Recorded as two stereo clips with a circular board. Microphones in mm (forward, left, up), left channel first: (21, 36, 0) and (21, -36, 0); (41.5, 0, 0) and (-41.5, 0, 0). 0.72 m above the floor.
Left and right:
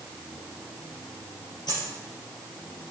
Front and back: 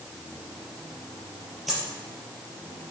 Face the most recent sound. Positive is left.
turn(degrees=90)